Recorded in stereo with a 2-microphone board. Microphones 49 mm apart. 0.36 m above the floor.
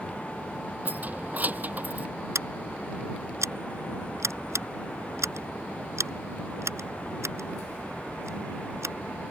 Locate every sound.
0.8 s keys jangling: 35° right (ahead or behind)
2.4 s scissors: 75° right (ahead or behind)